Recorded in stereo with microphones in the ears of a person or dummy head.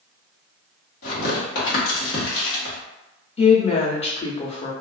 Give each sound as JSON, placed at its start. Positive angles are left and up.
{"t": 1.0, "sound": "tearing paper", "side_deg": 50, "distance_m": 1.1}
{"t": 3.4, "sound": "a woman speaking", "side_deg": 35, "distance_m": 0.6}